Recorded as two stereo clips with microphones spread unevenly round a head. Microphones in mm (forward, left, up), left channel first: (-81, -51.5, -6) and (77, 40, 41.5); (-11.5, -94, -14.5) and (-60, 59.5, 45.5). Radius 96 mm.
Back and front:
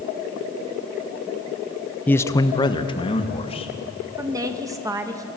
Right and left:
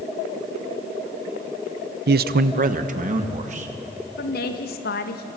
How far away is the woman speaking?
About 1.9 m.